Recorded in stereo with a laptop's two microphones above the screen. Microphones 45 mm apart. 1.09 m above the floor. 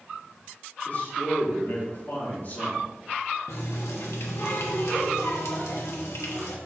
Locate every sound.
0.8 s a man speaking: 45° left (ahead or behind), 3 m
3.5 s a running tap: 75° left (ahead or behind), 1.1 m